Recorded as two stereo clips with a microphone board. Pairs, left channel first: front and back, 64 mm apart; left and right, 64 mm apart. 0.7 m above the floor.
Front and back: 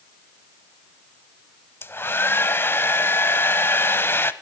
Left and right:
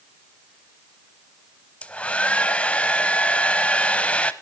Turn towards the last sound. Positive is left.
turn(degrees=30)